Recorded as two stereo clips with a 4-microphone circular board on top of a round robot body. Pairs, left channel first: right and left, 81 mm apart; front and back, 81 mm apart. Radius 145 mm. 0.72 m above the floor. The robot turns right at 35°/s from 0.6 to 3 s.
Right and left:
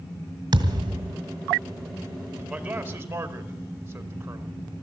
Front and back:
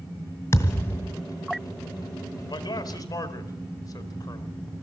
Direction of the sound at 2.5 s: 10° left.